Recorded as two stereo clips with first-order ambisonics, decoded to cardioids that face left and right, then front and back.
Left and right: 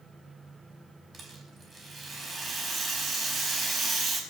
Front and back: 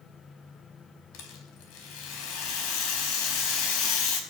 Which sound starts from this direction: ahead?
A rattle, at 1.1 s.